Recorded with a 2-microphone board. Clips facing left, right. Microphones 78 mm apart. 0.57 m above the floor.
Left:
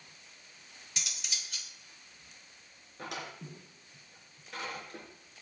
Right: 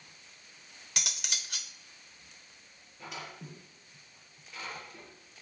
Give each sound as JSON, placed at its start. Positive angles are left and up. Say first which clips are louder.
{"t": 1.0, "sound": "cutlery clinking", "louder": "right 4 dB", "side_deg": -65, "distance_m": 0.9}
{"t": 3.0, "sound": "a drawer", "louder": "left 2 dB", "side_deg": 80, "distance_m": 4.0}